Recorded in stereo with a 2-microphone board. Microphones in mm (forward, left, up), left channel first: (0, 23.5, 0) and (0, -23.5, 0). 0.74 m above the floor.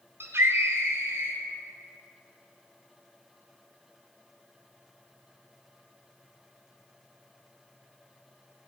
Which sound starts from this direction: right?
A scream, at 0.2 s.